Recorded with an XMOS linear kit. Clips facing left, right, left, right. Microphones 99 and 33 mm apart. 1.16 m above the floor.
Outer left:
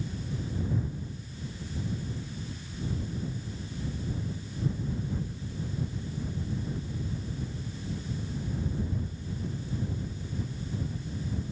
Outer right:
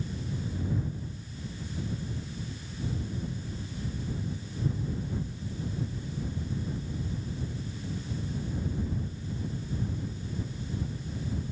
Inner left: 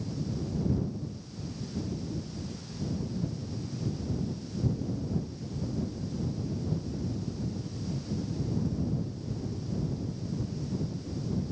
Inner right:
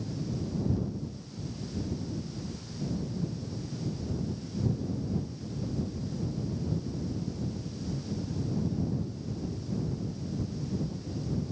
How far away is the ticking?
No ticking in this recording.